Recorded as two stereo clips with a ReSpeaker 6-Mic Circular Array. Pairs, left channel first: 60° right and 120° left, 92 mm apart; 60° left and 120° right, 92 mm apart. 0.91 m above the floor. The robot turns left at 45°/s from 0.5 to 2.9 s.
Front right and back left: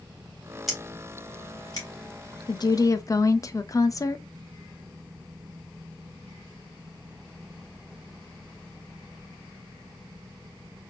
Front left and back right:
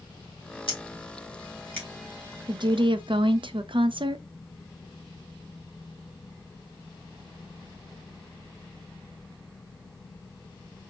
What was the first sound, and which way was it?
Scissors, 30° left.